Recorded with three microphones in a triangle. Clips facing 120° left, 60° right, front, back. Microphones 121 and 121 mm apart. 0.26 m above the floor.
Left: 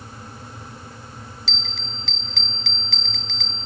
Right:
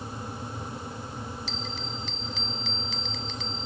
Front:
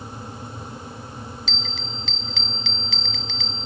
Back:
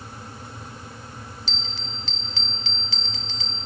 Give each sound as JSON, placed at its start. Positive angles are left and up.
{"t": 1.5, "sound": "a bell", "azimuth_deg": 125, "distance_m": 0.5}